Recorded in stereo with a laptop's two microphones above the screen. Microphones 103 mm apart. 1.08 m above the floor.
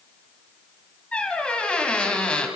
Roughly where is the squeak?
Centre.